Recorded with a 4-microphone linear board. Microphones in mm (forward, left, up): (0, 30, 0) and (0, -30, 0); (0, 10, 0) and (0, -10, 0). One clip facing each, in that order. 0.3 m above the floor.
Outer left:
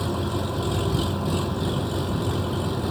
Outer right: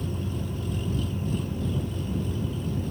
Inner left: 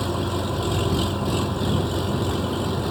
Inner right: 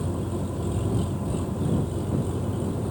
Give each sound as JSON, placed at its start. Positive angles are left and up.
{"t": 0.0, "sound": "an engine running", "side_deg": 85}